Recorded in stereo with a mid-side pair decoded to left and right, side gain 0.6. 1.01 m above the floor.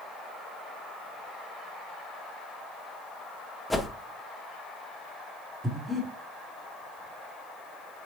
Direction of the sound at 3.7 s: 5° left.